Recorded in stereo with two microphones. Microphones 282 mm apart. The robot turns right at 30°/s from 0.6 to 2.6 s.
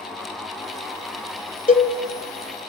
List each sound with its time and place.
1.7 s a cowbell: 30° left (ahead or behind), 0.6 m; by 1.9 s 35° left (ahead or behind), 0.6 m